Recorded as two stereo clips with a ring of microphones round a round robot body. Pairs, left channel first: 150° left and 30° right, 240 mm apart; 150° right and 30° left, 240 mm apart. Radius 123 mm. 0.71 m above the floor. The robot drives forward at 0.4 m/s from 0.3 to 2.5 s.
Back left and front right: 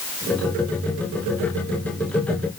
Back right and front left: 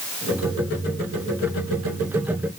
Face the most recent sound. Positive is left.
No sound to turn to.